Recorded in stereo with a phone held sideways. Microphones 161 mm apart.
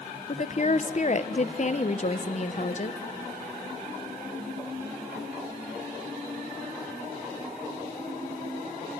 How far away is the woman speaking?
About 1.1 m.